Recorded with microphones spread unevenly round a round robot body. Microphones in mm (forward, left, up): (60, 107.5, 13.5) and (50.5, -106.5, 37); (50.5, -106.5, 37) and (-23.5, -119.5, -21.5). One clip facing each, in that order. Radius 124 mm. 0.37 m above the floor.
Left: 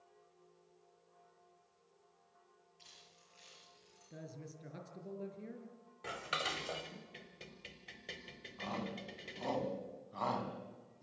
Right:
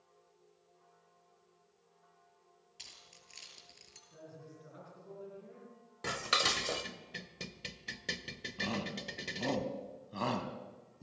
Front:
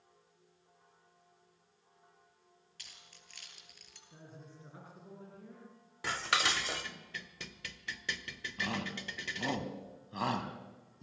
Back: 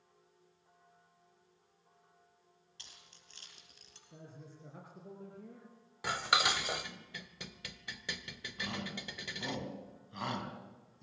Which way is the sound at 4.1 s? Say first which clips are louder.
Left 2 dB, back 1 dB; 120° left.